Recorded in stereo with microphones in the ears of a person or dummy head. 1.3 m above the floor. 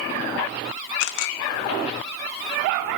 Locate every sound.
1.0 s a camera shutter: 65° left (ahead or behind), 1.6 m